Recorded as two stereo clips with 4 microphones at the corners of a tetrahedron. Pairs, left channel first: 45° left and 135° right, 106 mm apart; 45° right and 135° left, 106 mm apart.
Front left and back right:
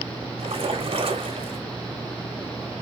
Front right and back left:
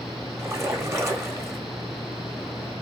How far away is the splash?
About 0.7 m.